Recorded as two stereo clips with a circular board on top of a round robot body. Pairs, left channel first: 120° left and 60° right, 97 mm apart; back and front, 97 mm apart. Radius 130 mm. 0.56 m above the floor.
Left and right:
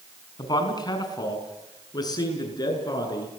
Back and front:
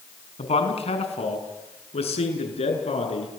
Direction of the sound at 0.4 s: 170° left.